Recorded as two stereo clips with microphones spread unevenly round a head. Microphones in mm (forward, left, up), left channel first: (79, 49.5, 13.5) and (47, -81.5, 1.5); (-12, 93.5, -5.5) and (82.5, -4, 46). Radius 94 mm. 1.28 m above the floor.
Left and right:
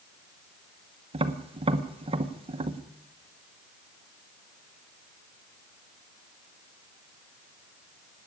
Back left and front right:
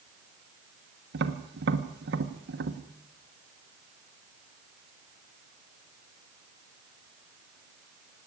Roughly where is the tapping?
Ahead right.